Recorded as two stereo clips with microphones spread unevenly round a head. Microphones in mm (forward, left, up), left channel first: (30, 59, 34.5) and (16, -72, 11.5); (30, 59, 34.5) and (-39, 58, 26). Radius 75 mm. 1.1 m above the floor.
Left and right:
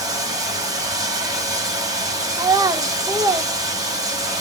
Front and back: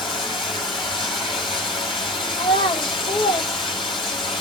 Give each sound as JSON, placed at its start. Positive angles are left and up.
{"t": 0.0, "sound": "running water", "azimuth_deg": -30, "distance_m": 2.5}
{"t": 2.4, "sound": "a child speaking", "azimuth_deg": -30, "distance_m": 0.9}